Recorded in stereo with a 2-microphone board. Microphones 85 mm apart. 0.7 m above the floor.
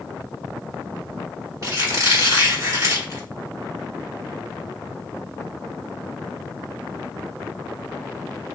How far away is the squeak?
About 1.4 m.